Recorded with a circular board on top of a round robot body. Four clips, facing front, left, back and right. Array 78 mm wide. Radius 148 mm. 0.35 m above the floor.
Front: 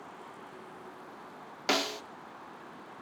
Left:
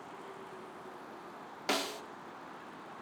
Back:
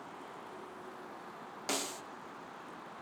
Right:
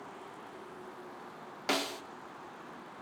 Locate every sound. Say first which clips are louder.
1.7 s a snare drum: right 1 dB, front 8 dB; 5° right, 1.1 m